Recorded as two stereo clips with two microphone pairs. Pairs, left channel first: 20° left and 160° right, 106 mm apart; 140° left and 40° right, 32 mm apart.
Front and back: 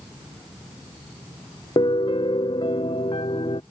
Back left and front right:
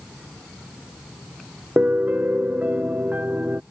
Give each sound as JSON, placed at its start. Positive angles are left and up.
{"t": 1.8, "sound": "a piano", "azimuth_deg": -15}